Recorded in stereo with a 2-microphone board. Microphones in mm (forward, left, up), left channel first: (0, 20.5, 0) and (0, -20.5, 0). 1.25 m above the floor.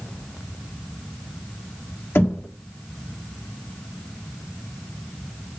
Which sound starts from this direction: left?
Knocking, at 2.1 s.